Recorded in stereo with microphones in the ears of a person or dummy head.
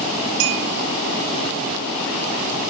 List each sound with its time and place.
0.4 s a clink: 70° right (ahead or behind), 1.6 m